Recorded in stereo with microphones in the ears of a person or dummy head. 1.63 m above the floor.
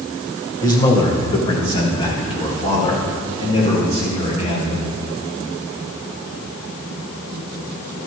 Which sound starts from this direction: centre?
A man speaking, at 0.6 s.